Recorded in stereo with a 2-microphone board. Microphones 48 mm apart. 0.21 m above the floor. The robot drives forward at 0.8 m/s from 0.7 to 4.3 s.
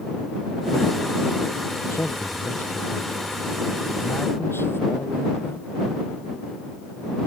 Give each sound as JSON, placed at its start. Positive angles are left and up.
{"t": 1.9, "sound": "a man speaking", "side_deg": 65}